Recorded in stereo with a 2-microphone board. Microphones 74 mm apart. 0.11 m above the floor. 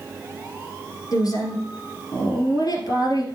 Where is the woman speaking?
55° left (ahead or behind), 1.9 m.